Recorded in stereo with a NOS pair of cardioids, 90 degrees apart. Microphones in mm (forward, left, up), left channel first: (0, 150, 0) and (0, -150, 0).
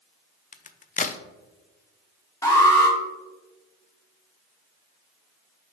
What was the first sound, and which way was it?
A crack, 25° left.